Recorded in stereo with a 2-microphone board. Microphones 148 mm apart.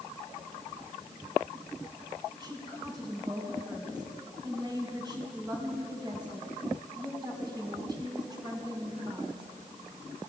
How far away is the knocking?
No knocking in this recording.